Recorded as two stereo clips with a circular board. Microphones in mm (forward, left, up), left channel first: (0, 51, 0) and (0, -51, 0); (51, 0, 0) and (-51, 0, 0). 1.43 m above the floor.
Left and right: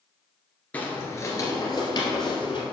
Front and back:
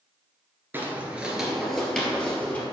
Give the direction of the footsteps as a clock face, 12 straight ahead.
7 o'clock.